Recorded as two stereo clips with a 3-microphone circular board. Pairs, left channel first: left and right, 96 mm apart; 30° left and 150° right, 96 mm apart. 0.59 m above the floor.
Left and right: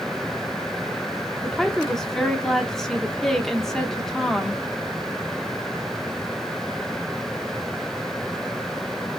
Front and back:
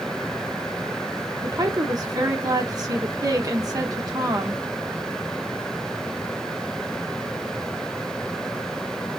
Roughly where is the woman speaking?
Behind.